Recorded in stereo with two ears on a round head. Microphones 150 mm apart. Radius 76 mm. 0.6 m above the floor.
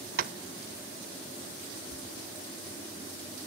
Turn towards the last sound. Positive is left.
turn(degrees=-50)  # may be behind; listen again after turning